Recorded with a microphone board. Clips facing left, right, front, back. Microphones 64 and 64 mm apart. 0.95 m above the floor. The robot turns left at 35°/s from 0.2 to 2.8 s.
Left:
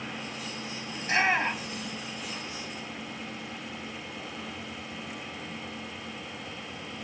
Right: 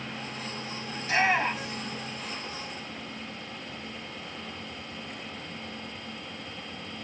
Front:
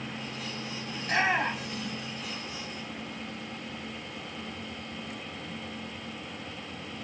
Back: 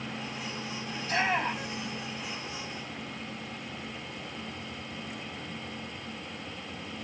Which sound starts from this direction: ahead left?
A shout, at 1.0 s.